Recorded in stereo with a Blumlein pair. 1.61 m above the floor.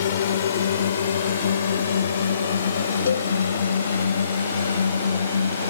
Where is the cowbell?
70° left.